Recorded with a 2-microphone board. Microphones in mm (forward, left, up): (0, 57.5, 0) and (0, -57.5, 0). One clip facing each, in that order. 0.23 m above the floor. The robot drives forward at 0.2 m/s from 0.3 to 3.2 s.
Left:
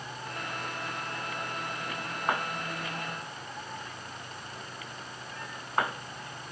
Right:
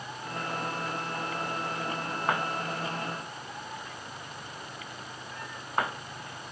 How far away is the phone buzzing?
I don't hear a phone buzzing.